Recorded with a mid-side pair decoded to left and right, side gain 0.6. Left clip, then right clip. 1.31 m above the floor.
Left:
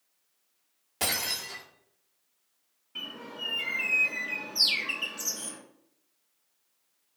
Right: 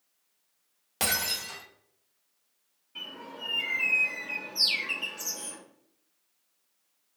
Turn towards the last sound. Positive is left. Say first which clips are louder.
# left 2 dB
turn(degrees=20)